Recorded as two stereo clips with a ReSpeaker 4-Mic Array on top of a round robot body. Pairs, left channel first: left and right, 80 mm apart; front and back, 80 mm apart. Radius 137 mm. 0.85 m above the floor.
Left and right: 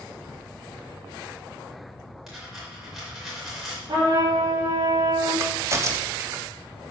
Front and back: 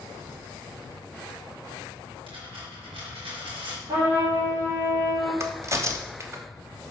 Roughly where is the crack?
Behind right.